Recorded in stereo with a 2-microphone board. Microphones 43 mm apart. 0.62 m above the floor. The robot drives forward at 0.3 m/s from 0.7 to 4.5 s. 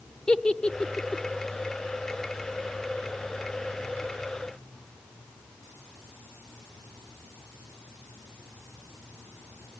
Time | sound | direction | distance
0.3 | a giggle | 20° left (ahead or behind) | 1.1 m